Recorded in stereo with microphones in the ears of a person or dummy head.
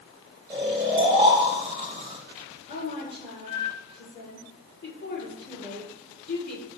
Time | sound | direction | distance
0.5 | snoring | 15° right (ahead or behind) | 1.8 m
2.7 | a woman speaking | 50° left (ahead or behind) | 6.5 m